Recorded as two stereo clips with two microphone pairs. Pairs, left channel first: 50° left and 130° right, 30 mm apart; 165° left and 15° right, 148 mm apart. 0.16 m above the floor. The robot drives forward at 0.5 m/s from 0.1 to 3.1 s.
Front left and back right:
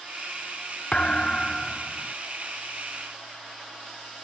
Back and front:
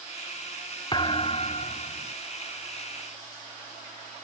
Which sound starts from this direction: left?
A thud, at 0.9 s.